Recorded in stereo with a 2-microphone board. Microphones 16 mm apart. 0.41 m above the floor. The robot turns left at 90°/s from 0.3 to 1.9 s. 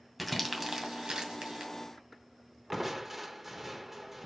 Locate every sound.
0.2 s crumpling: centre (ahead or behind), 2 m; by 1.7 s 50° right (ahead or behind), 2 m
2.7 s crushing: 10° right (ahead or behind), 1.1 m